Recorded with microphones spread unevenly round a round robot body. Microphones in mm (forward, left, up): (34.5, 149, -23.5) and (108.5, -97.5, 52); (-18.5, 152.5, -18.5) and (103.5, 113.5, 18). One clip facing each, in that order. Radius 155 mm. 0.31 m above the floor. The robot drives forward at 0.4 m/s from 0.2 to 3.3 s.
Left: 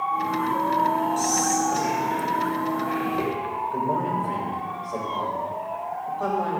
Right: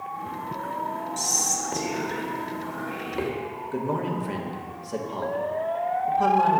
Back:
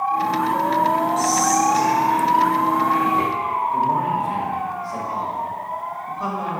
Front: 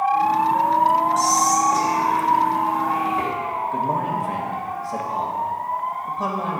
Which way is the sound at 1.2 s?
45° right.